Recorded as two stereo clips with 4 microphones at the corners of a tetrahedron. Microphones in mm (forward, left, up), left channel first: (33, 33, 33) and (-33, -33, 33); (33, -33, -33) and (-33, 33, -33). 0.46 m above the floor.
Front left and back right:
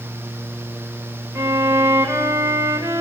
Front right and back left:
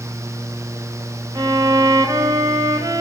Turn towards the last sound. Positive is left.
turn(degrees=175)